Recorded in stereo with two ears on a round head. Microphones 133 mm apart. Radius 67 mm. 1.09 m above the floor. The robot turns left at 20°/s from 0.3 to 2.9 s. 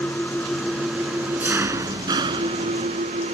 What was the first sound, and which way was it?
An engine running, 10° left.